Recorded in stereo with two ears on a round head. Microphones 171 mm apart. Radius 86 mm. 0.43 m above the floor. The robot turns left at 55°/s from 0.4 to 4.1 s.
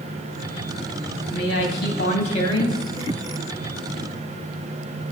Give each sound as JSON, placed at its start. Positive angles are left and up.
{"t": 1.3, "sound": "a woman speaking", "azimuth_deg": 100, "distance_m": 2.5}